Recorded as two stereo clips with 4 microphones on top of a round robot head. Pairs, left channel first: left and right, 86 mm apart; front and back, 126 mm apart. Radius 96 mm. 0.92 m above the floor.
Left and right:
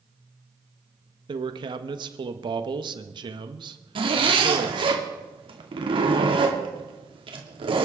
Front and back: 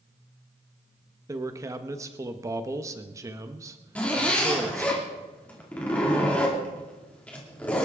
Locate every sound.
1.3 s a man speaking: 115° right, 1.2 m
4.0 s a zipper: 80° right, 2.5 m